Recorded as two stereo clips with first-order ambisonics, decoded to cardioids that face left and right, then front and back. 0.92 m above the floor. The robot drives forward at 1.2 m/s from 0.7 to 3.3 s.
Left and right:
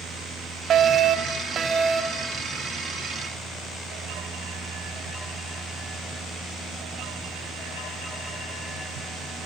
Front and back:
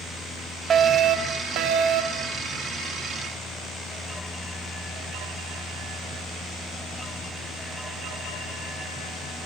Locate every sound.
0.7 s a fire alarm: 130° right, 2 m; by 2.3 s 160° right, 3.5 m